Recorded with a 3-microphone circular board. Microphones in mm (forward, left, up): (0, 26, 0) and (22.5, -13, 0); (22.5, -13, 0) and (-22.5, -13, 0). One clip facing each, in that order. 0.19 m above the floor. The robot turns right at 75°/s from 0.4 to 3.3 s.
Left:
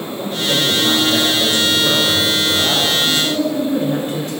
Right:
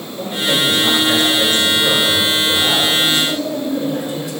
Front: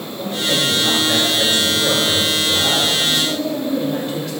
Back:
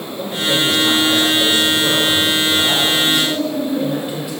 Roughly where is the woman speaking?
Left.